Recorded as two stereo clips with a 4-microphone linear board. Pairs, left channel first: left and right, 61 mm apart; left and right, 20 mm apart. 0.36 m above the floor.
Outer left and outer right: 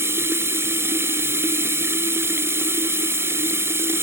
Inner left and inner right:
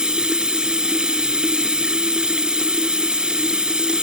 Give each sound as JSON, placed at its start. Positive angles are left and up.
{"t": 0.0, "sound": "running water", "side_deg": -45}